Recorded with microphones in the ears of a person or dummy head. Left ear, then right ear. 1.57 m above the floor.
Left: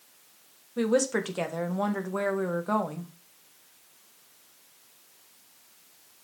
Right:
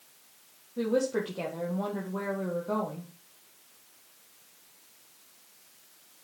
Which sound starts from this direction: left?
A woman speaking, at 0.8 s.